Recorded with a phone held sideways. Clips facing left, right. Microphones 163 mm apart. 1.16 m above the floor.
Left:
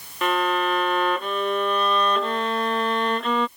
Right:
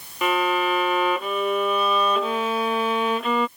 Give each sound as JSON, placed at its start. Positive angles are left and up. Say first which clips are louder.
{"t": 0.2, "sound": "a violin", "louder": "right 1 dB", "side_deg": -5}